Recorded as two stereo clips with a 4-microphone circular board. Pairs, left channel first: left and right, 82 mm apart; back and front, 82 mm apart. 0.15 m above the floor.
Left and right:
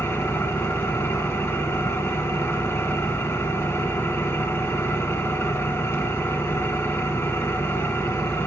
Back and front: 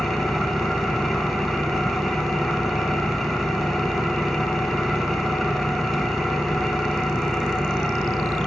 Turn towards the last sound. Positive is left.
turn(degrees=90)